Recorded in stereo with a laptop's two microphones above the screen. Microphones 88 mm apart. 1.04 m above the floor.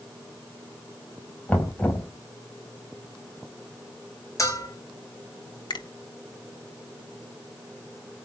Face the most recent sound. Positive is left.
turn(degrees=70)  # may be behind; listen again after turning